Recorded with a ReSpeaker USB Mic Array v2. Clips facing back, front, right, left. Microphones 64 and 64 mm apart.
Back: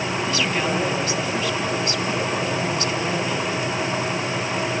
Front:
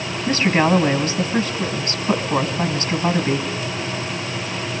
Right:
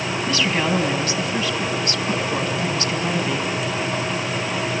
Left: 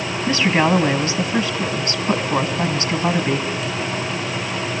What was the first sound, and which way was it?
A woman speaking, 30° left.